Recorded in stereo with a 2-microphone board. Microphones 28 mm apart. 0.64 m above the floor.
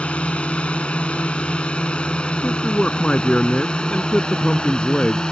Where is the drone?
40° left (ahead or behind); by 5.3 s 25° left (ahead or behind).